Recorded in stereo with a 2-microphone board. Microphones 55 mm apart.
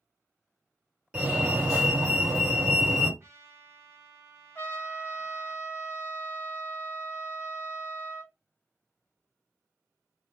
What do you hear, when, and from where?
1.1 s a fire alarm: 20° right (ahead or behind), 2.5 m
3.2 s a trumpet: 50° right (ahead or behind), 1.2 m
4.5 s a trumpet: 30° left (ahead or behind), 1.0 m